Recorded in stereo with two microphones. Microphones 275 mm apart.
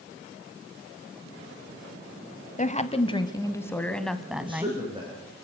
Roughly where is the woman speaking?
Left.